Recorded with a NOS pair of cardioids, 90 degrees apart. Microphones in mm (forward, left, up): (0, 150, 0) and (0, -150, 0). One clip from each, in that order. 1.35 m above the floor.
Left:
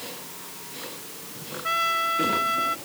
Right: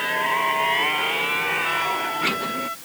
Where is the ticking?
I don't hear ticking.